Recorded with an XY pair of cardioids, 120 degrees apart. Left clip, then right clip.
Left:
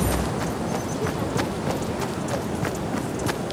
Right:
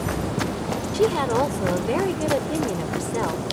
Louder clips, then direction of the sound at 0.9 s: Right 11 dB; 65° right.